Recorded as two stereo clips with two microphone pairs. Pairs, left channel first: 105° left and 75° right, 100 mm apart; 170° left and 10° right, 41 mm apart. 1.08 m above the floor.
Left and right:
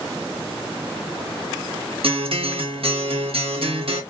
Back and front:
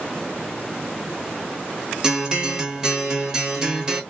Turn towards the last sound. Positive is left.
turn(degrees=-75)